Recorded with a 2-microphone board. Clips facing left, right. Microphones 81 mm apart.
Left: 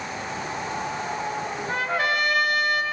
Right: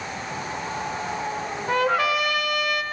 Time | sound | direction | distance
1.7 | a trumpet | 80° right | 4 m